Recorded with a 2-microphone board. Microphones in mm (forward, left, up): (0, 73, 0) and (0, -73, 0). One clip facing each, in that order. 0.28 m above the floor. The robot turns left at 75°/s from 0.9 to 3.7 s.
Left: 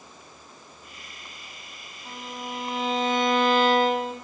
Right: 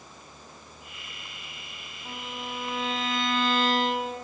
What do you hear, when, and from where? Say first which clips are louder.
2.0 s a violin: left 1 dB; 165° right, 1.9 m; by 4.1 s 75° left, 1.9 m